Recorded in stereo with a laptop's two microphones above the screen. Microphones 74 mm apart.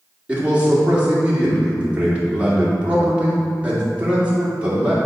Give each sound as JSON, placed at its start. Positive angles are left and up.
{"t": 0.3, "sound": "a man speaking", "side_deg": -15, "distance_m": 2.5}